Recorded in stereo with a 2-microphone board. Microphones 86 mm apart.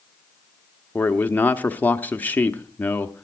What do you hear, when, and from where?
0.9 s a man speaking: 20° left (ahead or behind), 1.0 m